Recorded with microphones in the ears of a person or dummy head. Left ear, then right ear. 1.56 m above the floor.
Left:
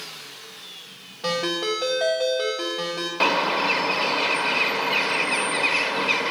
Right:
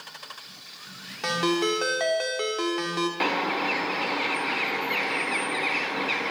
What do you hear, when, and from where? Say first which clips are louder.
1.2 s a ringtone: even; 65° right (ahead or behind), 1.9 m
3.2 s a bird: left 7 dB; 10° left (ahead or behind), 0.8 m